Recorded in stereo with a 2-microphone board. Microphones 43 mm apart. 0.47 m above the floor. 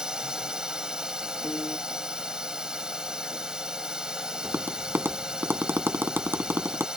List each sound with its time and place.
0.0 s a drone: 15° right (ahead or behind)
1.4 s a piano: 40° left (ahead or behind)
4.4 s tapping: 55° right (ahead or behind)